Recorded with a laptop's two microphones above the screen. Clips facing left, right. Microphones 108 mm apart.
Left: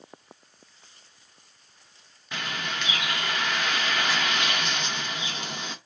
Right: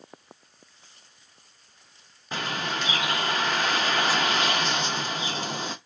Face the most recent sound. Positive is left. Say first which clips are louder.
# right 3 dB
turn(degrees=-35)  # may be behind; listen again after turning